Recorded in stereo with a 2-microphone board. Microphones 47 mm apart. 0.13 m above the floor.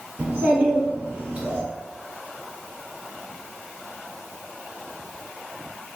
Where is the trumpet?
I don't hear a trumpet.